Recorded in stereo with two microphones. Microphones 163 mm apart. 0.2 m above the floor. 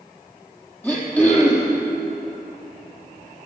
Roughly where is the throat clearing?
Centre.